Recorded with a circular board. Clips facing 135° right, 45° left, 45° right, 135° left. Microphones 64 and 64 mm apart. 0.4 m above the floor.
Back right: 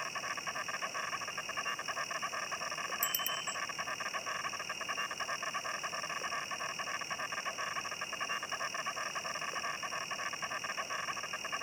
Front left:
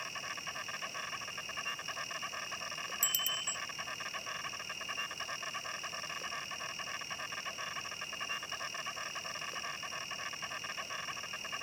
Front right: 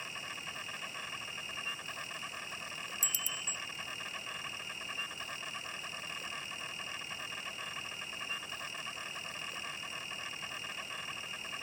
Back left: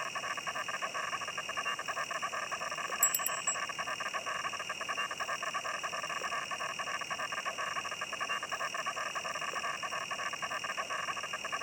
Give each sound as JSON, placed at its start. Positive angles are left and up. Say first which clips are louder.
{"t": 0.0, "sound": "an insect", "louder": "back right 4 dB, back left 7 dB", "azimuth_deg": 160}
{"t": 3.0, "sound": "a bicycle bell", "louder": "back right 2 dB, back left 6 dB", "azimuth_deg": 165}